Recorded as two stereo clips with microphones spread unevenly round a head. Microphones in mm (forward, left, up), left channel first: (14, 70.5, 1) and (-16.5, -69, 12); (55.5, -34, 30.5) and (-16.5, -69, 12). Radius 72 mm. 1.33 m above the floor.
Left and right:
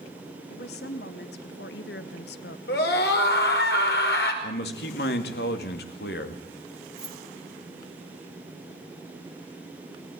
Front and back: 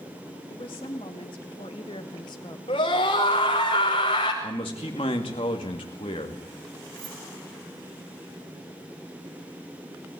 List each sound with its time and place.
0.5 s a woman speaking: 65° left, 2.5 m; by 2.6 s 80° left, 1.4 m
2.7 s a scream: 65° left, 5.5 m
4.4 s a man speaking: 70° left, 2.5 m
7.0 s keys jangling: 170° left, 2 m